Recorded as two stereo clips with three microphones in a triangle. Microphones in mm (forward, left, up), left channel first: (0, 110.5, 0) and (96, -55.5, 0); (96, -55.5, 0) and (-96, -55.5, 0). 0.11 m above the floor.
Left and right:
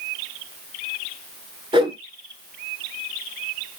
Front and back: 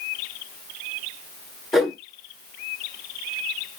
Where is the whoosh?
90° right, 0.8 m.